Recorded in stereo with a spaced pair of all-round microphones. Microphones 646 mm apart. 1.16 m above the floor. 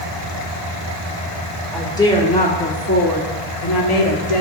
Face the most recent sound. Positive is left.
turn(degrees=60)  # may be behind; listen again after turning